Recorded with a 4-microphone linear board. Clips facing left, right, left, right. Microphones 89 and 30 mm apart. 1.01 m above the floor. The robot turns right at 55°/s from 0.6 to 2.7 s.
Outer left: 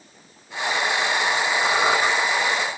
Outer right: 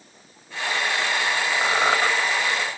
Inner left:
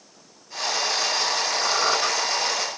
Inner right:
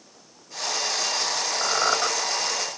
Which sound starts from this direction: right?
A squeak, at 1.6 s.